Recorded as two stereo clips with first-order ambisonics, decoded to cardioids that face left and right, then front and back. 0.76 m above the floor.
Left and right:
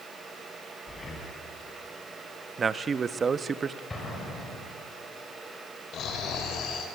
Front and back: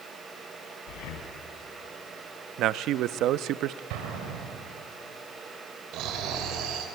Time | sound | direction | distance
0.9 | breathing | 15° left | 3.5 m
2.6 | a man speaking | 155° right | 0.6 m
3.9 | an explosion | 165° left | 4.5 m
5.9 | snoring | 140° left | 2.5 m